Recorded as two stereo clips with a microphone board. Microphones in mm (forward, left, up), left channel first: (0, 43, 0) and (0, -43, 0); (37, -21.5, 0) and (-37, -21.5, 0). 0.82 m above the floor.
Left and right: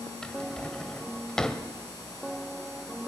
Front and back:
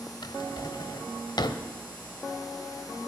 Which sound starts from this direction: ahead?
A drawer, at 0.2 s.